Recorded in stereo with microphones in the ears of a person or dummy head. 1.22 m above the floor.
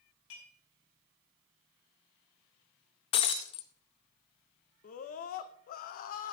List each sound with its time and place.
0.3 s dishes clattering: 85° left, 6 m
3.1 s breaking glass: 30° left (ahead or behind), 0.8 m
4.8 s a scream: 50° left (ahead or behind), 0.7 m